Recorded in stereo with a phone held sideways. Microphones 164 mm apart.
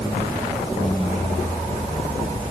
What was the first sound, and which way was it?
Only background noise.